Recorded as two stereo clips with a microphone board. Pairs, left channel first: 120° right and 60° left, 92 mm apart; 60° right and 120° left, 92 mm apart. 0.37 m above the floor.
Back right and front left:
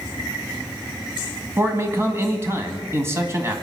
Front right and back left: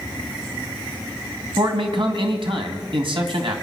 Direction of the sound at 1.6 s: 120° left.